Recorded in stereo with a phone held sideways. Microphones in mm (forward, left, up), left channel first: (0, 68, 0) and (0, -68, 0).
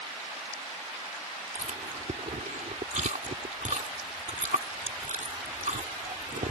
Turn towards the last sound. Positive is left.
turn(degrees=-70)  # may be behind; listen again after turning